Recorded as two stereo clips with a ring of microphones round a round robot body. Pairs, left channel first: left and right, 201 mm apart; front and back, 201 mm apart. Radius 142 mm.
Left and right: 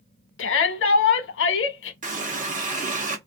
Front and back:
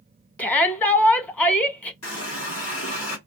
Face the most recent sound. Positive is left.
turn(degrees=-35)